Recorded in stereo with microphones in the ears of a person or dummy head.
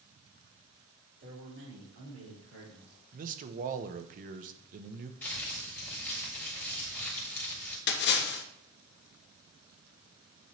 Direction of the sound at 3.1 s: 45° right (ahead or behind).